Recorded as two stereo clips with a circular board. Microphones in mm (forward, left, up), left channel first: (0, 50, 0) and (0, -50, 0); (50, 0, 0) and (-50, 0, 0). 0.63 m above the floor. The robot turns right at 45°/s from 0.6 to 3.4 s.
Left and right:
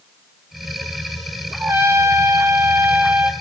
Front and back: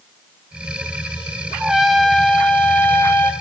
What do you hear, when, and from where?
1.6 s a trumpet: 100° right, 0.6 m; by 3.3 s 25° right, 0.6 m